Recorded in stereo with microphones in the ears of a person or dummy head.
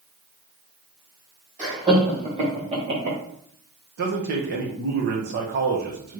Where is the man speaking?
55° right (ahead or behind), 1.0 m.